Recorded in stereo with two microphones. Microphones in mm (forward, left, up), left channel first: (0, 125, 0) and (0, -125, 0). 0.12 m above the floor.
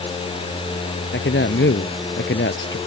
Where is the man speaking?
50° left (ahead or behind).